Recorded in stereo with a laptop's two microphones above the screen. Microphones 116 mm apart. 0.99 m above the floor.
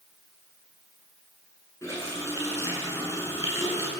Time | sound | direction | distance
1.8 | a running tap | 25° left (ahead or behind) | 7.5 m